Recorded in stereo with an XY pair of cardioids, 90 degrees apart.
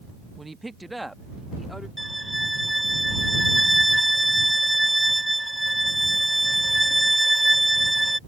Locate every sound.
0.4 s a woman speaking: 20° right; by 1.9 s 5° left
2.0 s a violin: 5° right